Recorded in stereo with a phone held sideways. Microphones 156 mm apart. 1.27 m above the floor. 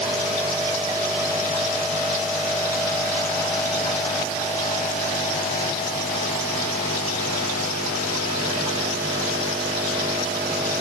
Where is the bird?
I don't hear a bird.